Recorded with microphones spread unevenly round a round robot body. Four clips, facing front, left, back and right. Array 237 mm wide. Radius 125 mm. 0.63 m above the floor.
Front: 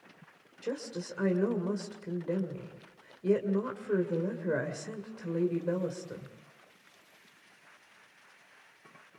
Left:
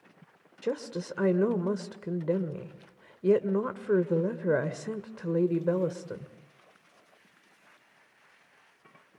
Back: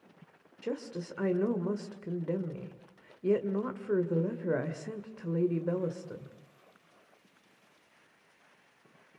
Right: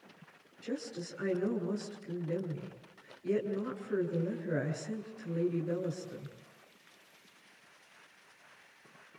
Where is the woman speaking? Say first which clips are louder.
Left 7 dB, even; 90° left, 1.9 m.